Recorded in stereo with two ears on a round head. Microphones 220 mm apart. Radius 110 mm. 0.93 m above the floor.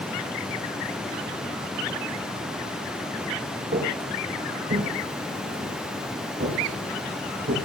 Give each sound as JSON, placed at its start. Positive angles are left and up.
{"t": 3.7, "sound": "footsteps", "side_deg": -35, "distance_m": 3.0}